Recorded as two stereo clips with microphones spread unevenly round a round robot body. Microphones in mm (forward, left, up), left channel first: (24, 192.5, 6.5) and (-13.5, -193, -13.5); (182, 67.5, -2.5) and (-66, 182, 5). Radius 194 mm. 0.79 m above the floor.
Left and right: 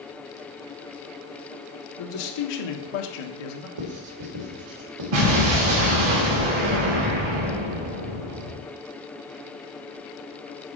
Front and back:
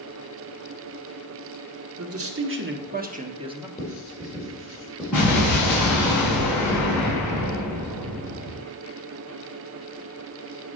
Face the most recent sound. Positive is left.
turn(degrees=-120)